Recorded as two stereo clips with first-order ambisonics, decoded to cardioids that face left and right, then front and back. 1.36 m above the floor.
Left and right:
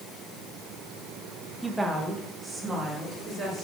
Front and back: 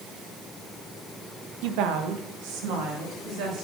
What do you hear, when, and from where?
1.6 s a woman speaking: 175° right, 1.0 m; by 3.6 s 165° right, 3 m